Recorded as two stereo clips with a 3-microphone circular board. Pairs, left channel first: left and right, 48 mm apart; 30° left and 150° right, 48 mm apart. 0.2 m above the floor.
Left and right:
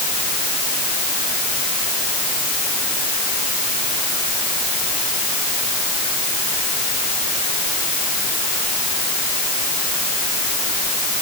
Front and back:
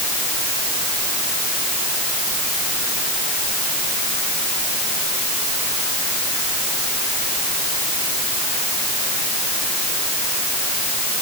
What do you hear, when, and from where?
Only background noise.